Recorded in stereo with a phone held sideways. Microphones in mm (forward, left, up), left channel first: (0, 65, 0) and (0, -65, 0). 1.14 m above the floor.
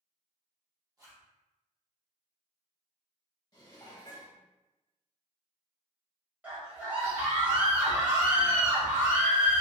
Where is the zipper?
30° right (ahead or behind), 1.3 m.